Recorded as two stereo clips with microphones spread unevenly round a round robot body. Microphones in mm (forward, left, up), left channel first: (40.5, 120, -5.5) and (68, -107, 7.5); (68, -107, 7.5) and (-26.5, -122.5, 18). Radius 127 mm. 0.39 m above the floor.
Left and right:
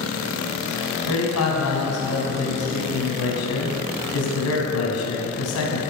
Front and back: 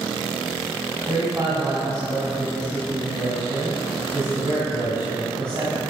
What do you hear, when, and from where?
1.1 s a man speaking: 115° left, 2.5 m